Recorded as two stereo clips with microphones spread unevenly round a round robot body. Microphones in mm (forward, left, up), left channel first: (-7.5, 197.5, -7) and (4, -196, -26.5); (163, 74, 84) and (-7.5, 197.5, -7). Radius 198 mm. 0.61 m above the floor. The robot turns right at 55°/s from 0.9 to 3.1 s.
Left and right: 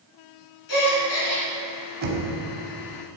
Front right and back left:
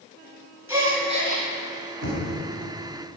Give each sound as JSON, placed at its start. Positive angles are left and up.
{"t": 0.7, "sound": "a gasp", "azimuth_deg": 65, "distance_m": 3.0}
{"t": 2.0, "sound": "knocking", "azimuth_deg": -155, "distance_m": 2.5}